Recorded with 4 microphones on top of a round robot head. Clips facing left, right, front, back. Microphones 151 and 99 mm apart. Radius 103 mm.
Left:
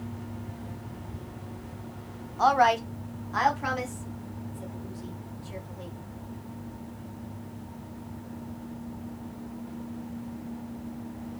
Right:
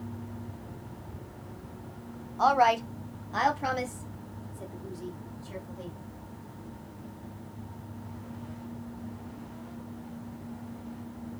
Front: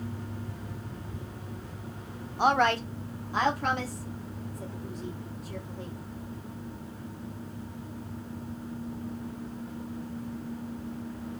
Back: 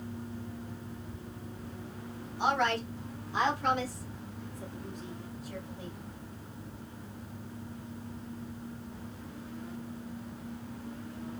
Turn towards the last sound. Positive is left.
turn(degrees=-55)